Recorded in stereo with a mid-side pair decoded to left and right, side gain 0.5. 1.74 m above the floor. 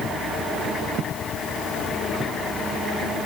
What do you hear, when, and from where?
Only background noise.